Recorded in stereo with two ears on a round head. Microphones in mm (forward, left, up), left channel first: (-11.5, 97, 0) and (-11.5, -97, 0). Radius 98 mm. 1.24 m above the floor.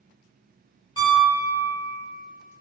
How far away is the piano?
About 1.9 m.